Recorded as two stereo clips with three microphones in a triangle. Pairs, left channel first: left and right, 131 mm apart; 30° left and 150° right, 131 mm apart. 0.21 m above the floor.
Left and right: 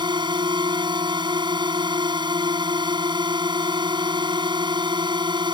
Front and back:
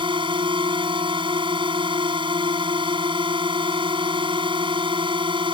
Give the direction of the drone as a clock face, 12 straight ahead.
4 o'clock.